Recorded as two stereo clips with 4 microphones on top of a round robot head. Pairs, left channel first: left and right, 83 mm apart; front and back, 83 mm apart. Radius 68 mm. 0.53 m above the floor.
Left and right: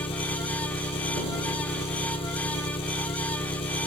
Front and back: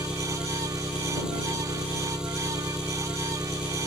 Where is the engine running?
95° left.